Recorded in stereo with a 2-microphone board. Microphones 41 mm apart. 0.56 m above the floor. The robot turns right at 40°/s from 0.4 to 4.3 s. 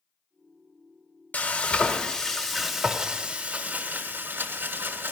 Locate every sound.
1.3 s frying: 130° left, 1.4 m; by 5.1 s 115° right, 1.4 m